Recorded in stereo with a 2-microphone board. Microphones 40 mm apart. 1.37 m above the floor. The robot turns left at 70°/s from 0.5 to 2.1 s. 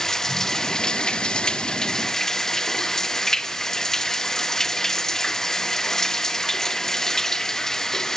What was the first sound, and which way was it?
Running water, 10° left (ahead or behind).